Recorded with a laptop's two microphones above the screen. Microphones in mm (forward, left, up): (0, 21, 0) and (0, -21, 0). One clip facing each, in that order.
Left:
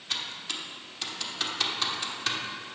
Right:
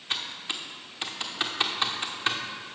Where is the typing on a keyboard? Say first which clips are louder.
Right 2 dB; 25° right (ahead or behind), 0.9 m.